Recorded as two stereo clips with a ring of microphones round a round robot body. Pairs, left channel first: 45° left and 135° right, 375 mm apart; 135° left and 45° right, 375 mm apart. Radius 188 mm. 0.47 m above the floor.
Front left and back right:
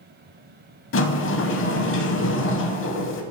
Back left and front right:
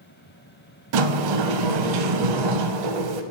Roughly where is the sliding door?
Ahead.